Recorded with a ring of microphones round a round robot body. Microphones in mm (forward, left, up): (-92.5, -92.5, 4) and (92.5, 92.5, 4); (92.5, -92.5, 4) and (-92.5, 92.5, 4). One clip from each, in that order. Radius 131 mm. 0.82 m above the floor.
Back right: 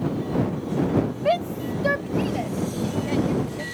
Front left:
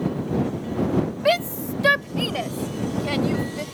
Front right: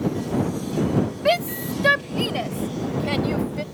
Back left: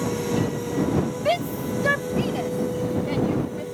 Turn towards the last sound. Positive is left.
turn(degrees=5)